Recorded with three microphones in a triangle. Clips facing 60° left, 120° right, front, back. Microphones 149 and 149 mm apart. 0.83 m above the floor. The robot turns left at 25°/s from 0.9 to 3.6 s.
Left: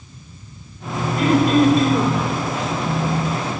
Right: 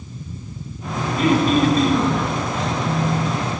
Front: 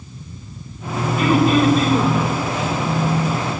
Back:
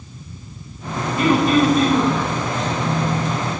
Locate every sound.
1.2 s throat clearing: 75° left, 3.5 m; by 2.1 s 50° left, 3.5 m